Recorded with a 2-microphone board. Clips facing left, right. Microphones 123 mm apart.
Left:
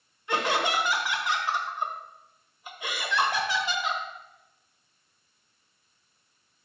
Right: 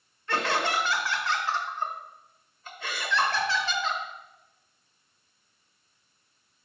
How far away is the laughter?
About 1.0 m.